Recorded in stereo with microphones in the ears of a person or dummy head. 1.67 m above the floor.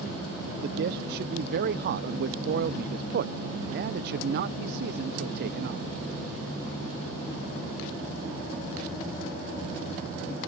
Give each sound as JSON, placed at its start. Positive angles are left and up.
{"t": 0.6, "sound": "a man speaking", "side_deg": -55}